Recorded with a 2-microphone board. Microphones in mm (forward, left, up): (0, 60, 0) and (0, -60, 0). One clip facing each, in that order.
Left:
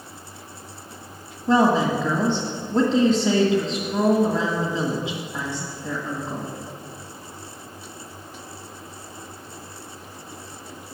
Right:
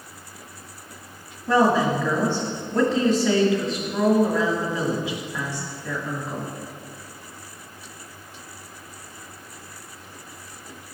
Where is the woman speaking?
20° left (ahead or behind), 1.5 m.